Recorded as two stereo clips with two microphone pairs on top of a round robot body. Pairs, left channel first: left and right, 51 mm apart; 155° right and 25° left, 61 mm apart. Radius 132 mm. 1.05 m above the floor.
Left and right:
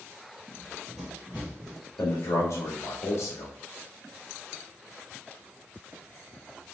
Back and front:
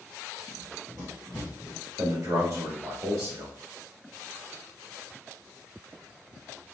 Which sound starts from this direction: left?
A man speaking, at 2.0 s.